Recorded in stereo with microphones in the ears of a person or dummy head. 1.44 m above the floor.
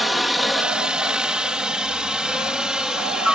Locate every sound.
0.0 s a helicopter: centre (ahead or behind)